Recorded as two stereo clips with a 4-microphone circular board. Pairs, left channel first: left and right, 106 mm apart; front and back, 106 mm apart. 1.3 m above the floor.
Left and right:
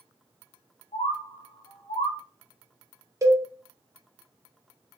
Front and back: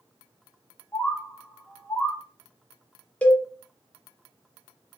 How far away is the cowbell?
About 0.5 m.